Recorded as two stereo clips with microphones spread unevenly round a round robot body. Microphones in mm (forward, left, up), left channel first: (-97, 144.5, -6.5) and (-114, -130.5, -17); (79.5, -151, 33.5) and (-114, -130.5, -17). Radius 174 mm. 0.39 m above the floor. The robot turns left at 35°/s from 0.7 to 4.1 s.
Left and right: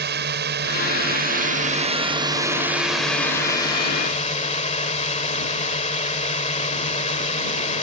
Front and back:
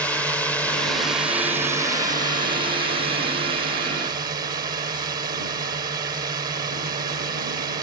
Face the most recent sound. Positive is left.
turn(degrees=140)